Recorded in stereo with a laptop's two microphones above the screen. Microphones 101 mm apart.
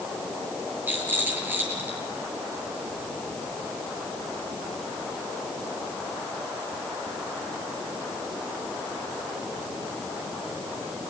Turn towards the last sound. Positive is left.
turn(degrees=-20)  # may be behind; listen again after turning